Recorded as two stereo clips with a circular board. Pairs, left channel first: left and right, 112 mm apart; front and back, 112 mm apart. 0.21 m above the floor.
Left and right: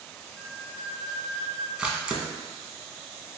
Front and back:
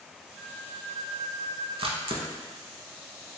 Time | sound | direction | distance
0.4 | a flute | straight behind | 1.7 m
1.8 | a camera shutter | 170° right | 0.6 m